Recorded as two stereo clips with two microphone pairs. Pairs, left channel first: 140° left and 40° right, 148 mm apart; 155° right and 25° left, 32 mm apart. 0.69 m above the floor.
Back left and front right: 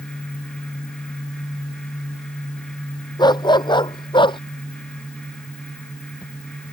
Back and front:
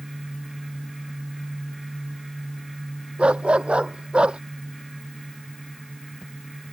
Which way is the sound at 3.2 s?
80° left.